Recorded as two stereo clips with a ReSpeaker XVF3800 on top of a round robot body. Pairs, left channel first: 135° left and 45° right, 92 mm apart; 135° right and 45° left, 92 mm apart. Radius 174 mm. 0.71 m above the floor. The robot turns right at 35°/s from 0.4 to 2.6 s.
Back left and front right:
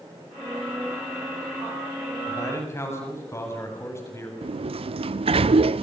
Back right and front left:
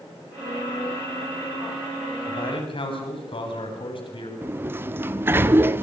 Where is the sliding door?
25° right, 0.6 m.